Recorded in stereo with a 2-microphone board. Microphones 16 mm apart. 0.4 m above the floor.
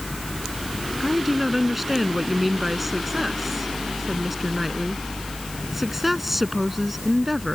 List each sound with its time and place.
1.0 s a woman speaking: 10° right (ahead or behind)